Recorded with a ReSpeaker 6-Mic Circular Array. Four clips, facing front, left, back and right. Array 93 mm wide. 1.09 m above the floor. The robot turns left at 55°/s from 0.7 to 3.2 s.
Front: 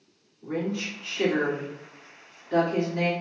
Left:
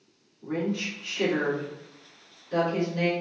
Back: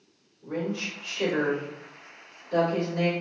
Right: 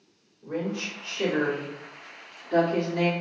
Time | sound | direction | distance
0.4 | a woman speaking | 65° left | 2 m